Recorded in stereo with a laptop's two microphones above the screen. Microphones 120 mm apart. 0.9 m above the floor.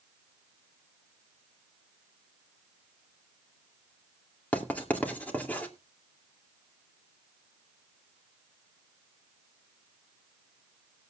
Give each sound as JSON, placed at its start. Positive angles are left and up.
{"t": 4.5, "sound": "writing", "side_deg": 15, "distance_m": 2.5}